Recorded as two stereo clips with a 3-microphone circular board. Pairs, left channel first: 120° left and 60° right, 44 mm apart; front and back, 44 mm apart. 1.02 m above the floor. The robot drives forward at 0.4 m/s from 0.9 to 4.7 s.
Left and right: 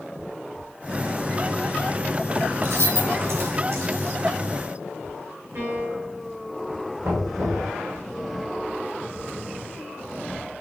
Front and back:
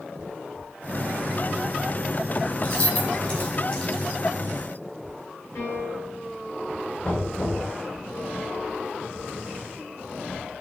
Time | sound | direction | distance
2.6 | keys jangling | 50° right | 3 m
5.5 | a piano | 30° right | 3 m
7.0 | knocking | 55° right | 3 m